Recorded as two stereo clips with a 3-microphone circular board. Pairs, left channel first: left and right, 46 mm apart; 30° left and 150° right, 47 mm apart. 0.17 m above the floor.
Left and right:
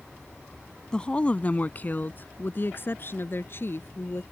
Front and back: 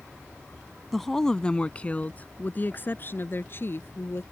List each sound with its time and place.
0.9 s a woman speaking: 110° left; by 4.2 s 60° left